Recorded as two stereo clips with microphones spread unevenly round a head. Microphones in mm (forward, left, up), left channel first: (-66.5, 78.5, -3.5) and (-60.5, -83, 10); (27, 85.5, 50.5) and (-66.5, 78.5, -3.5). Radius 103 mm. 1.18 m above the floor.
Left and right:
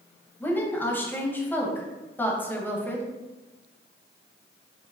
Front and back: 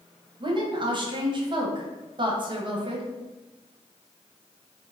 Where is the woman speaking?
170° left, 1.1 m.